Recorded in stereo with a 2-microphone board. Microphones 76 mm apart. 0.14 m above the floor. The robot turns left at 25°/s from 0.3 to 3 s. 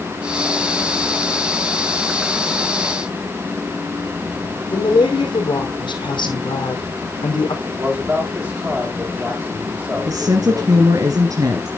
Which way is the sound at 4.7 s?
70° left (ahead or behind).